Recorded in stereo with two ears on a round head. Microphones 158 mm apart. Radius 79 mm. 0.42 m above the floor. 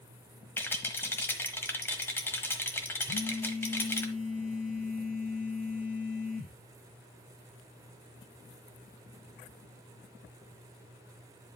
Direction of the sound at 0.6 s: 15° left (ahead or behind).